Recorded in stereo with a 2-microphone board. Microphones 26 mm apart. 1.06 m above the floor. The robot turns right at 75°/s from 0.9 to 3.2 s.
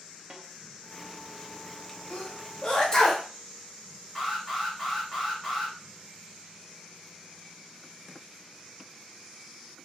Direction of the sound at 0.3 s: 45° right (ahead or behind).